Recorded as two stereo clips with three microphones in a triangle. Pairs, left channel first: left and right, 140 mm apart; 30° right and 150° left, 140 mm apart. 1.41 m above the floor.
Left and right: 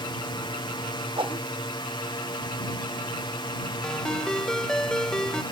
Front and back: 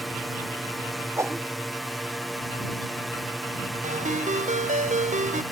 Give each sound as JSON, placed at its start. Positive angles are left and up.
{"t": 0.0, "sound": "a drone", "azimuth_deg": 60}
{"t": 1.2, "sound": "a whoosh", "azimuth_deg": -140}
{"t": 3.8, "sound": "a ringtone", "azimuth_deg": 175}